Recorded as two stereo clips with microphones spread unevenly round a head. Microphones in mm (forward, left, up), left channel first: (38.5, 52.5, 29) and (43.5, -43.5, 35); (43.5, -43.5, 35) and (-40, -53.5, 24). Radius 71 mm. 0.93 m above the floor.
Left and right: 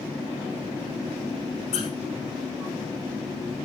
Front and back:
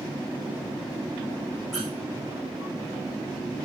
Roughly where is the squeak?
Left.